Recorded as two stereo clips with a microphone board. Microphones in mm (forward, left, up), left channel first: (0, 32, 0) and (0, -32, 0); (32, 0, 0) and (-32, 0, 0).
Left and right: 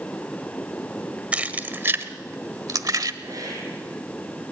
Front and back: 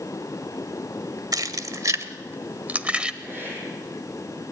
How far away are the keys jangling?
About 1.3 m.